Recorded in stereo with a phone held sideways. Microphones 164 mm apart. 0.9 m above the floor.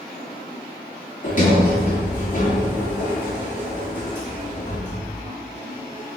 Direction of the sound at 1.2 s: 50° left (ahead or behind).